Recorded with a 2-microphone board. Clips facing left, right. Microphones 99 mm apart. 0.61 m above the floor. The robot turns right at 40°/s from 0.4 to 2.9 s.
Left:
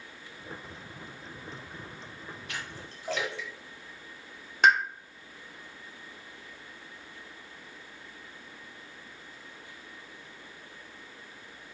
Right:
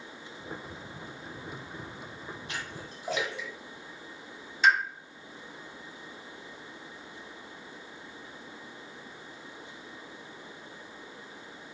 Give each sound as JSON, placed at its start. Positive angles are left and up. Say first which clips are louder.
{"t": 2.5, "sound": "a splash", "louder": "even", "side_deg": -25, "distance_m": 1.6}
{"t": 4.6, "sound": "a pop", "louder": "left 2 dB", "side_deg": 60, "distance_m": 1.5}